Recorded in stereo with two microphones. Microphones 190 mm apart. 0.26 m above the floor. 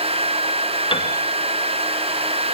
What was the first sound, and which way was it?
A piano, 30° left (ahead or behind).